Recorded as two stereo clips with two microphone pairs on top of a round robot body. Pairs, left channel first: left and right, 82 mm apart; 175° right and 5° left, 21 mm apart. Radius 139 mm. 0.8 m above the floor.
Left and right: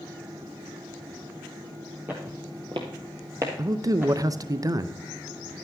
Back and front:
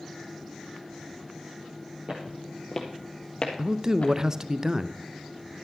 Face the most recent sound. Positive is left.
turn(degrees=-55)